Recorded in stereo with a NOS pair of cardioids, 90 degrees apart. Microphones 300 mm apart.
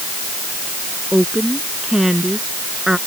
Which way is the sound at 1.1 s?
Straight ahead.